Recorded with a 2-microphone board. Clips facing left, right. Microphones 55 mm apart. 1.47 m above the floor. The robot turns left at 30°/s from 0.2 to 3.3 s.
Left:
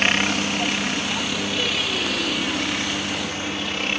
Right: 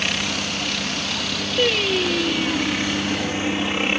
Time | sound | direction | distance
0.0 | a helicopter | 35° left (ahead or behind) | ?
1.6 | singing | 125° right | ?